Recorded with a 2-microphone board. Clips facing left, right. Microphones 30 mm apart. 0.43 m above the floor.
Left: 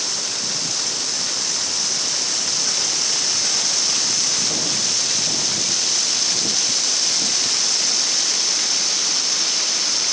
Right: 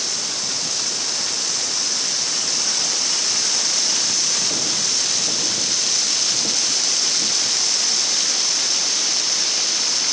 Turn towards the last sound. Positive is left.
No sound to turn to.